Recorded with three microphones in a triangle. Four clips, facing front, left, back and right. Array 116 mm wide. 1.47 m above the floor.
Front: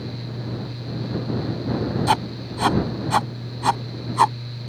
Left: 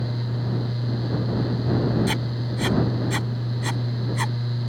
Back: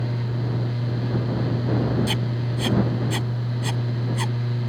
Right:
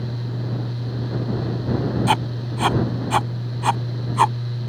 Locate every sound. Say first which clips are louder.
2.1 s writing: right 6 dB, front 5 dB; 40° right